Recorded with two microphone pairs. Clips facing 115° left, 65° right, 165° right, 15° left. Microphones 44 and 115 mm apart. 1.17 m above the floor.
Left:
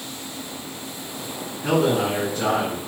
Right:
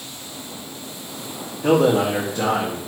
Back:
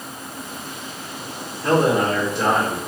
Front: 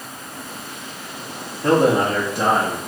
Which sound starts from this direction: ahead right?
A man speaking, at 1.6 s.